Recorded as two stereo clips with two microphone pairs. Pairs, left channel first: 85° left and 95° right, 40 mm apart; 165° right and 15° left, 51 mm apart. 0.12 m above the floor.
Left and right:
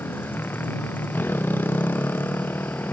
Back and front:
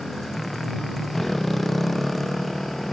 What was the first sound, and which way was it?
A motorcycle, 110° left.